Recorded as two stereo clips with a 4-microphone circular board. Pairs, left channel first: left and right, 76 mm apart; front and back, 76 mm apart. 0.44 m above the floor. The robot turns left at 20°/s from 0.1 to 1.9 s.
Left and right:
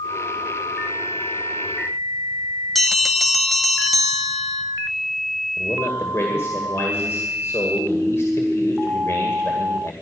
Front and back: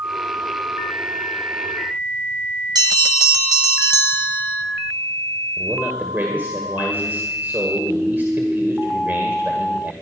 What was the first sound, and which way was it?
A bell, 175° left.